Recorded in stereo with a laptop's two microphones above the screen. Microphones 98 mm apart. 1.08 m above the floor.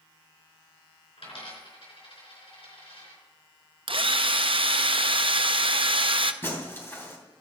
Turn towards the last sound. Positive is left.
turn(degrees=25)  # may be behind; listen again after turning